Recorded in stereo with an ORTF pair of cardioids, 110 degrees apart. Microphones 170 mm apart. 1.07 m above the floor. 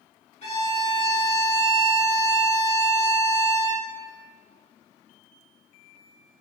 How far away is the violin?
About 1.5 m.